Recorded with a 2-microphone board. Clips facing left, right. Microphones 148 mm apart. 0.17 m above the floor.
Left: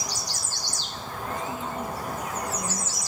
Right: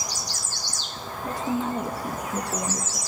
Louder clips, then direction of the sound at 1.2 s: Right 6 dB; 80° right.